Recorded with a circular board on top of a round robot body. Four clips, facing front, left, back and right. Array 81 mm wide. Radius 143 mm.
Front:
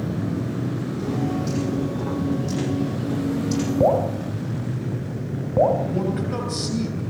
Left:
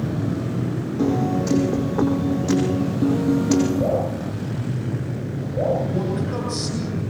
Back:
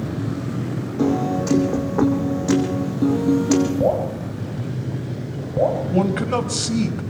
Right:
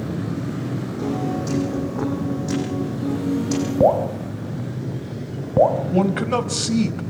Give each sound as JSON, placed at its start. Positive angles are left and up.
{"t": 1.0, "sound": "a piano", "azimuth_deg": 160, "distance_m": 6.0}
{"t": 3.8, "sound": "dripping", "azimuth_deg": -70, "distance_m": 3.5}
{"t": 5.9, "sound": "a man speaking", "azimuth_deg": -130, "distance_m": 3.5}